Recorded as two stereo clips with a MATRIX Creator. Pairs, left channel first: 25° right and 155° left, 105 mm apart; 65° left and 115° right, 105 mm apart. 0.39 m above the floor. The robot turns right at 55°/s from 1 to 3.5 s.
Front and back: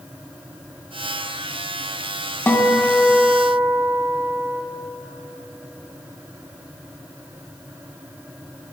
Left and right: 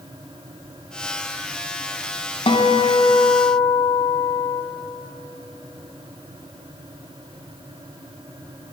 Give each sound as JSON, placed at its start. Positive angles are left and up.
{"t": 2.5, "sound": "a guitar", "azimuth_deg": 45, "distance_m": 1.0}